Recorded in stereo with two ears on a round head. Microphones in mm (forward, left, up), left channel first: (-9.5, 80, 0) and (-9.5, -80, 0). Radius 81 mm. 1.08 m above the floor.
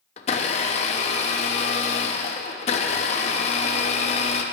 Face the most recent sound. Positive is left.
turn(degrees=35)  # may be behind; listen again after turning